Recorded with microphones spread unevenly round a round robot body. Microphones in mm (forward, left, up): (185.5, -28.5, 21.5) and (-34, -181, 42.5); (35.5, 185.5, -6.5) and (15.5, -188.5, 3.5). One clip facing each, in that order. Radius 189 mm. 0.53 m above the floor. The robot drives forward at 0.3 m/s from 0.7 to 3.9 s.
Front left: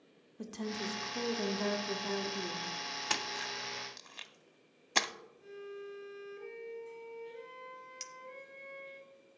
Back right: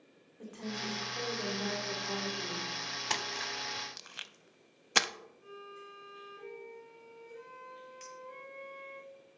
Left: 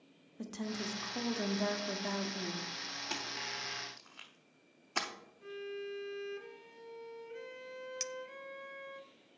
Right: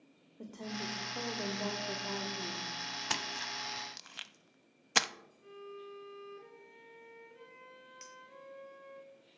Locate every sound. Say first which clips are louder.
0.4 s a woman speaking: front left 2 dB, left 3 dB; 45° left, 1.2 m; by 2.7 s 80° left, 1.0 m
3.1 s a splash: back right 1 dB, left 1 dB; 45° right, 0.6 m; by 5.1 s 75° right, 0.5 m
5.4 s a violin: front left 7 dB, left 6 dB; 100° left, 1.8 m
8.0 s a clink: back right 4 dB, left 14 dB; 70° left, 0.6 m